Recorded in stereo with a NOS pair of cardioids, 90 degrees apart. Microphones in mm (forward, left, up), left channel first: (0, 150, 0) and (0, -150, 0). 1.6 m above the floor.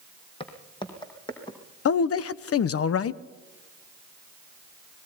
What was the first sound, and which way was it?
Footsteps, 20° left.